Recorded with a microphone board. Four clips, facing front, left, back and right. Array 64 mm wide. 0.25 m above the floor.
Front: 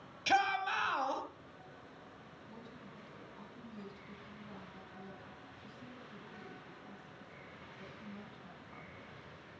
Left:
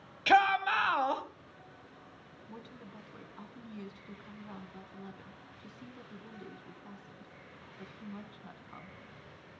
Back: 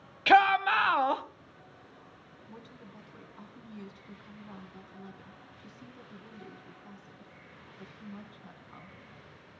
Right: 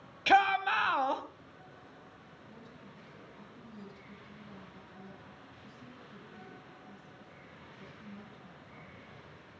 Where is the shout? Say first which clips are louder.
Even, back 10 dB; straight behind, 1.1 m.